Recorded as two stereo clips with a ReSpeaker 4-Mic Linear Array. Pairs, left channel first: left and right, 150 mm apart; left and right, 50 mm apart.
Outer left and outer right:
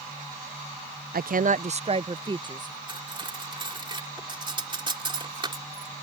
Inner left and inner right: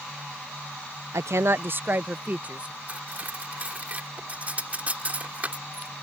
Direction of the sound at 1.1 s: 85° right.